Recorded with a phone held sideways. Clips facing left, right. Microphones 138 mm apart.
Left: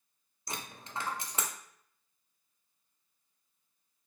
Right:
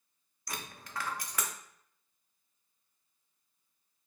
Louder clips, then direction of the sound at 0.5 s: Left 1 dB; 25° left (ahead or behind).